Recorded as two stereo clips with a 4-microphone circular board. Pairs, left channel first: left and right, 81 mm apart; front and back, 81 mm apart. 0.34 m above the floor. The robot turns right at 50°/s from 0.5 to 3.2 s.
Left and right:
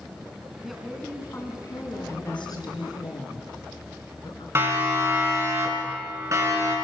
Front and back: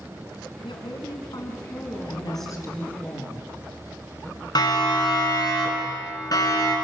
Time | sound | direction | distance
0.6 | a woman speaking | 5° right | 3 m
2.1 | a woman speaking | 25° left | 4 m
4.5 | a siren | 30° right | 4 m